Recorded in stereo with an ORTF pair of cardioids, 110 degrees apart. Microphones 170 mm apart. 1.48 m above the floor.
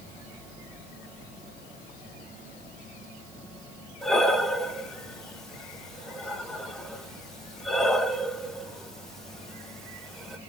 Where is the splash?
I don't hear a splash.